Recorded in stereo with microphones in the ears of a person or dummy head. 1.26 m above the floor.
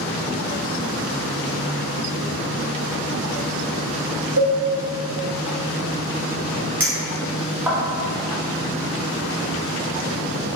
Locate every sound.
4.4 s a cowbell: 70° right (ahead or behind), 1.6 m
6.8 s a clink: 10° right (ahead or behind), 0.7 m